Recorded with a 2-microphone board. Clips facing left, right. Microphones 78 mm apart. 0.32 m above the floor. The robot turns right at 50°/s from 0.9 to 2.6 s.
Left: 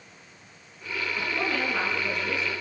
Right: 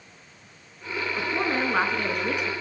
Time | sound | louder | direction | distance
1.2 | a woman speaking | right 3 dB | 160° right | 4 m